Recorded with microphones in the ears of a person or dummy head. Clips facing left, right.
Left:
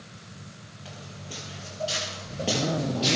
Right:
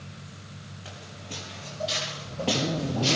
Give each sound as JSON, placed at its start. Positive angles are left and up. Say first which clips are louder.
{"t": 0.8, "sound": "footsteps", "louder": "left 1 dB", "side_deg": 0, "distance_m": 4.5}